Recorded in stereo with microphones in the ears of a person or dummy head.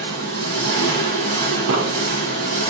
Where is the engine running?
60° right (ahead or behind), 1.5 m.